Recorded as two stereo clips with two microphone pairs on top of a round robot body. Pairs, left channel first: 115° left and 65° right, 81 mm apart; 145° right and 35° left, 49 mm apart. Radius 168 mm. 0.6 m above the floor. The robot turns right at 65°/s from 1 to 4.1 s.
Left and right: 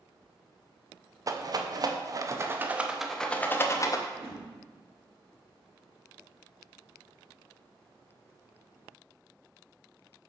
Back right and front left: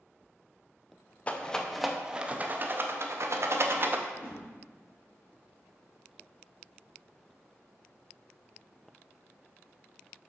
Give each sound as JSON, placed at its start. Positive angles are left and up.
{"t": 1.3, "sound": "a rattle", "azimuth_deg": -95, "distance_m": 0.8}
{"t": 4.1, "sound": "a whoosh", "azimuth_deg": -15, "distance_m": 2.0}